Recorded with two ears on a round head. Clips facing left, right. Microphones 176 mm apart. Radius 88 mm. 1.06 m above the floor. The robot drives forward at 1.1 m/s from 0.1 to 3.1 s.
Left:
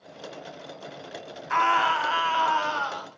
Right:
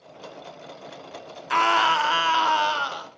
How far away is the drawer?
I don't hear a drawer.